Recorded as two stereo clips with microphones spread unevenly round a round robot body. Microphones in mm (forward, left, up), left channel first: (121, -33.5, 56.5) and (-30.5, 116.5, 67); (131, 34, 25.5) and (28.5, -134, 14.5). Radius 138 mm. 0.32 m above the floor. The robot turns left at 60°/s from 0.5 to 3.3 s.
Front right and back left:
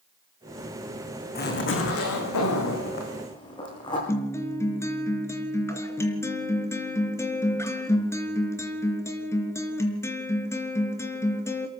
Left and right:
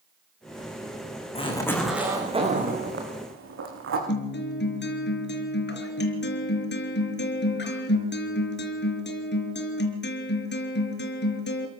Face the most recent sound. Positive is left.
turn(degrees=30)